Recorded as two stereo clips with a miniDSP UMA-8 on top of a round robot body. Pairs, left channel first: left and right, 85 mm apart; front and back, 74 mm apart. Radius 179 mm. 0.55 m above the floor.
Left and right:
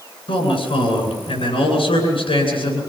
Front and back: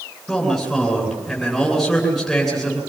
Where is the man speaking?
90° left, 9.5 m.